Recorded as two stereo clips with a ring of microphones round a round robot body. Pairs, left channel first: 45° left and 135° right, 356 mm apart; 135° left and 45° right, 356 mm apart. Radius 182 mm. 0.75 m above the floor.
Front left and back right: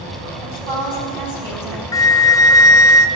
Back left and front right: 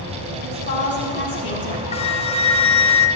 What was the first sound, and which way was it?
A woman speaking, 160° right.